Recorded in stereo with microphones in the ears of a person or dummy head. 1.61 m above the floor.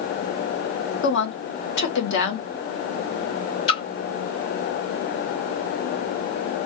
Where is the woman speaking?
65° left (ahead or behind), 1.1 m.